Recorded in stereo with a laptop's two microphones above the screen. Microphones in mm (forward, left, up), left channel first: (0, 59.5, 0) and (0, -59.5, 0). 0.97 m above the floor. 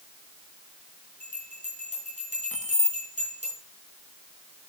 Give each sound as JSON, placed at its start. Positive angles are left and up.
{"t": 1.2, "sound": "a bell", "side_deg": -70, "distance_m": 4.5}
{"t": 2.5, "sound": "keys jangling", "side_deg": 75, "distance_m": 1.0}